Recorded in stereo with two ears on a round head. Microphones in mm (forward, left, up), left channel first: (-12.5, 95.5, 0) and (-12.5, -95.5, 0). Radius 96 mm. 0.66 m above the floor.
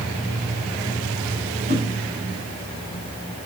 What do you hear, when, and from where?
1.7 s a whoosh: 40° right (ahead or behind), 3 m